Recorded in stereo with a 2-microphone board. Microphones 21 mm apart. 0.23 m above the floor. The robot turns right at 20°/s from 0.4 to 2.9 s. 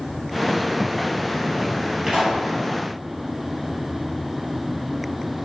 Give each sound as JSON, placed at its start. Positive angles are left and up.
{"t": 2.1, "sound": "a pop", "side_deg": -40, "distance_m": 1.8}